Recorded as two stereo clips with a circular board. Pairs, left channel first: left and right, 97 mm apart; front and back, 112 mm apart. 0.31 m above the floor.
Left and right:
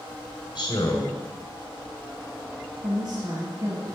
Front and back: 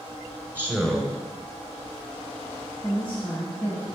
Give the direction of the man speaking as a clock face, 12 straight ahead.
9 o'clock.